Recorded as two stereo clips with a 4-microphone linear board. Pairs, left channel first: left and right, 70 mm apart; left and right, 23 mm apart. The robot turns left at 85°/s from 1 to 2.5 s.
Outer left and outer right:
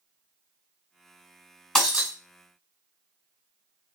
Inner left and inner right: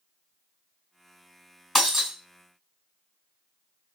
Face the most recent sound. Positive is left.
turn(degrees=-55)